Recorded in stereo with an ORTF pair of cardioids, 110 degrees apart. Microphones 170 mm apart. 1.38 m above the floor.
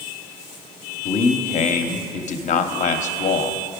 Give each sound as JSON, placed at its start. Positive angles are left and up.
{"t": 1.1, "sound": "a man speaking", "azimuth_deg": 45, "distance_m": 0.8}